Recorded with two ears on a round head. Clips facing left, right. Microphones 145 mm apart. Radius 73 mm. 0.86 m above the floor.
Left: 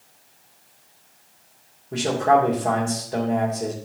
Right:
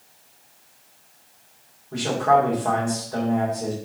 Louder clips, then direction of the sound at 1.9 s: Left 1 dB; 30° left (ahead or behind).